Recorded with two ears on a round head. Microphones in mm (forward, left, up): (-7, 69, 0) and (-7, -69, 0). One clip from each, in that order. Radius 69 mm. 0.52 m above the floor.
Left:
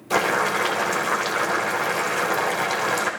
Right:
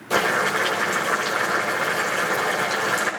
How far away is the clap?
No clap in this recording.